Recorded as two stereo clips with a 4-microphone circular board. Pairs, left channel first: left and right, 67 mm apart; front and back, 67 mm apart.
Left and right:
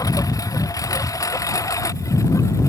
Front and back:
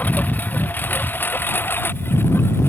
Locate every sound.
0.0 s a lawn mower: 65° left; by 2.7 s 50° left